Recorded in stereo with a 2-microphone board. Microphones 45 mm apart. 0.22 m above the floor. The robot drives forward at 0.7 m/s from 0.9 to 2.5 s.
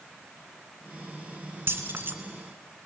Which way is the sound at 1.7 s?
60° right (ahead or behind).